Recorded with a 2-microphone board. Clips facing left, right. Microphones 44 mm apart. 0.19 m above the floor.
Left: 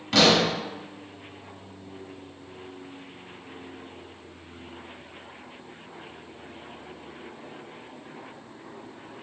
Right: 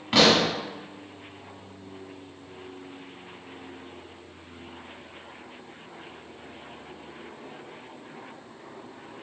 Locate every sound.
0.1 s a pop: 20° right (ahead or behind), 0.9 m